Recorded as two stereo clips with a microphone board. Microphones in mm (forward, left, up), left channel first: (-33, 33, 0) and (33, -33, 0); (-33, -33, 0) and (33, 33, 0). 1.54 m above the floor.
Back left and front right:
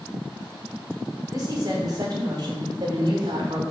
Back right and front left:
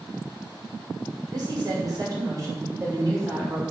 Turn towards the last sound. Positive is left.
turn(degrees=-10)